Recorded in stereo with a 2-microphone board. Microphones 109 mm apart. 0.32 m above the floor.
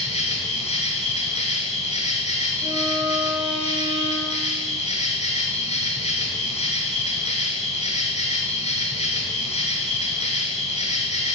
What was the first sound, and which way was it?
An insect, 85° left.